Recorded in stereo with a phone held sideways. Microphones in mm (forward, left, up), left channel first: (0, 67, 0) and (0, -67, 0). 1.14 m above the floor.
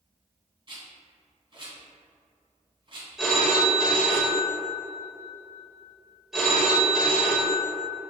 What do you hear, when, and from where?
0.7 s a rattle: 45° right (ahead or behind), 2.0 m
3.2 s a phone ringing: 5° right (ahead or behind), 0.8 m